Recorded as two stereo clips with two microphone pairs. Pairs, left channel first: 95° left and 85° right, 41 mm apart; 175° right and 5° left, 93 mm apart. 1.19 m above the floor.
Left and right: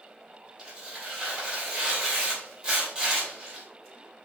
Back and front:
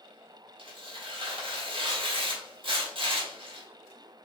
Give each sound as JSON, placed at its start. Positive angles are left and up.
{"t": 0.6, "sound": "tearing paper", "azimuth_deg": -25, "distance_m": 1.9}